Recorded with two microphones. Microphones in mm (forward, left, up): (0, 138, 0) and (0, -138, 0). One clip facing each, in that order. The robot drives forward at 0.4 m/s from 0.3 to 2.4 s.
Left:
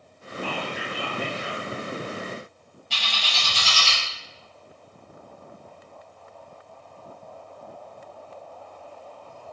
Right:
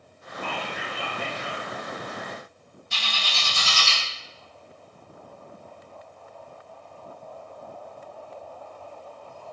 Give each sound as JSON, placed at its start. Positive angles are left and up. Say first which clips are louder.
{"t": 0.4, "sound": "whispering", "louder": "left 3 dB", "side_deg": 5, "distance_m": 1.6}
{"t": 2.9, "sound": "a bird", "louder": "even", "side_deg": 85, "distance_m": 1.3}